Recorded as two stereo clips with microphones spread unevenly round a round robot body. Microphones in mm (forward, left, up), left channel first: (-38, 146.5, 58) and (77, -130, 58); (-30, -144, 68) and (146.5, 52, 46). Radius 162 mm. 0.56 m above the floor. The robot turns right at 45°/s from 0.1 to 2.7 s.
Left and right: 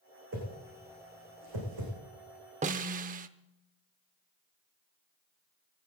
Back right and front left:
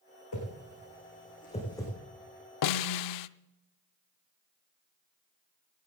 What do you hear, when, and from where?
0.3 s a whoosh: 120° right, 7.5 m; by 1.9 s 50° right, 7.5 m
2.6 s a snare drum: 135° right, 0.5 m